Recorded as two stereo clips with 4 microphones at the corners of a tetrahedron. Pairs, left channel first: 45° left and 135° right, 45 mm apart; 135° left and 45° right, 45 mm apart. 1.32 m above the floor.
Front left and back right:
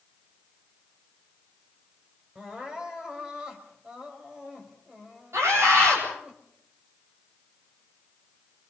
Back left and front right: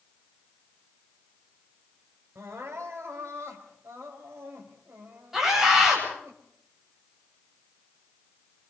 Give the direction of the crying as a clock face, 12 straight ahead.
2 o'clock.